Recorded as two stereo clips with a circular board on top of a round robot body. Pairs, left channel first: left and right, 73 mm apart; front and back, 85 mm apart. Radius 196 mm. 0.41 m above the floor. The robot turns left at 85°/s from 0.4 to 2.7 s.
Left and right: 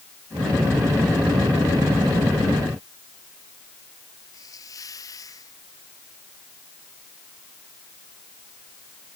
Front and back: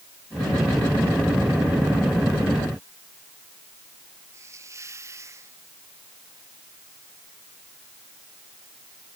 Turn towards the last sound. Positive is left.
turn(degrees=125)